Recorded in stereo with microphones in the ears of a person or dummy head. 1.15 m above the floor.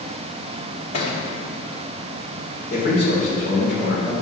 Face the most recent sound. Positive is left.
turn(degrees=50)  # may be behind; listen again after turning